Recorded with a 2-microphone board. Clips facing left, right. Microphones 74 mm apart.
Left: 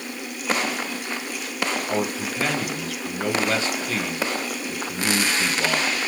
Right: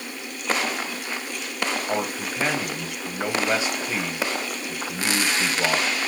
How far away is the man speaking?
About 1.2 m.